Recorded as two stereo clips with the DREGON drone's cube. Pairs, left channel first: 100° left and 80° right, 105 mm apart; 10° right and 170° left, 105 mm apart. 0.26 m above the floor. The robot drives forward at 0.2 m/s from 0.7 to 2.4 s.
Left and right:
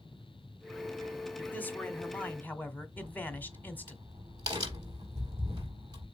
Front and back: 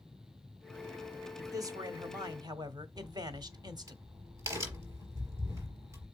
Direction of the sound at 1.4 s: 155° left.